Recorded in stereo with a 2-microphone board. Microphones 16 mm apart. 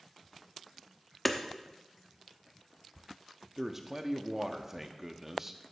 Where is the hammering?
10° left (ahead or behind), 0.8 m.